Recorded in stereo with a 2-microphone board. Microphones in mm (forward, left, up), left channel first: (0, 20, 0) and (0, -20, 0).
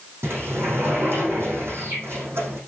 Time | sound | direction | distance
0.2 | a sliding door | 85° right | 6 m